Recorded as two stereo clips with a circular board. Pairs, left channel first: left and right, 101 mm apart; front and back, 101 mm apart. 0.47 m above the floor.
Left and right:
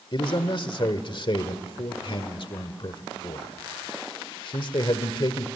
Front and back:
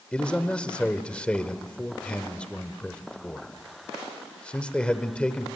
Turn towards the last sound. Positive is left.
turn(degrees=80)